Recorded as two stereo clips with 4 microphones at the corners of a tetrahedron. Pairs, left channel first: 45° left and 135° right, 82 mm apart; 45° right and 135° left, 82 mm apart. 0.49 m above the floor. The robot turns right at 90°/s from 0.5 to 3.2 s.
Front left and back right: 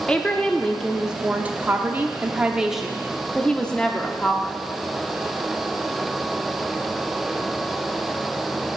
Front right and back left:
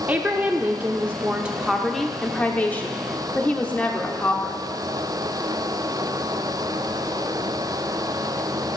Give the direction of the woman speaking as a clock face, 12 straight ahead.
9 o'clock.